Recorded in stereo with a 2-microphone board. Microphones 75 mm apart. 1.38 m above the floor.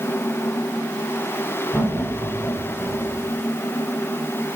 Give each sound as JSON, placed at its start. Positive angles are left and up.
{"t": 1.7, "sound": "laughter", "side_deg": -20, "distance_m": 4.0}